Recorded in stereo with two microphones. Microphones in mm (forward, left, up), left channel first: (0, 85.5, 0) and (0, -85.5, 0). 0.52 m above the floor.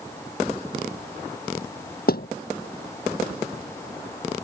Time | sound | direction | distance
2.1 | a thud | 65° left (ahead or behind) | ?